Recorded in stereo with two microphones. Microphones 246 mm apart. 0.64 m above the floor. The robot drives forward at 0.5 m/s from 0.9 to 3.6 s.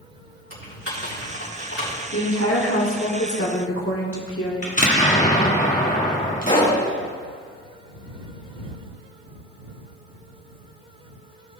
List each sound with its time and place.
0.5 s typing on a keyboard: 60° left (ahead or behind), 4 m; by 2.0 s 65° left (ahead or behind), 3.5 m
2.1 s a woman speaking: 60° left (ahead or behind), 1.5 m
4.6 s an explosion: 30° left (ahead or behind), 1.3 m
6.4 s a pop: 35° left (ahead or behind), 3 m